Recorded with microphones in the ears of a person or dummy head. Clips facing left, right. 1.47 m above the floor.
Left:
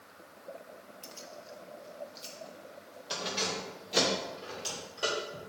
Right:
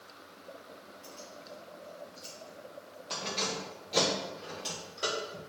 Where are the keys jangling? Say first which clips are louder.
Even; 60° left (ahead or behind), 1.1 m; by 5.4 s centre (ahead or behind), 4 m.